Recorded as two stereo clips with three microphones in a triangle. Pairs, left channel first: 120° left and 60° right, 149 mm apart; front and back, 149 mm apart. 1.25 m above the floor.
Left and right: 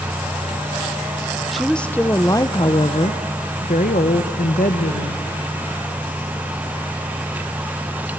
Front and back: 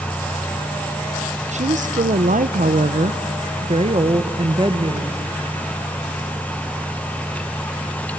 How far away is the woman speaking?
About 1.1 m.